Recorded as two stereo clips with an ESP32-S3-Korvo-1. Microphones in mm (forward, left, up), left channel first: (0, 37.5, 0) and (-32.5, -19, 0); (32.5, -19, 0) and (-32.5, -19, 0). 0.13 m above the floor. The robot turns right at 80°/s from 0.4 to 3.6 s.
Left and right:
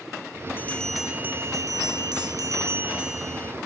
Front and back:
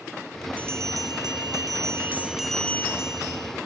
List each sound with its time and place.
0.6 s a bell: 120° left; by 3.5 s 5° right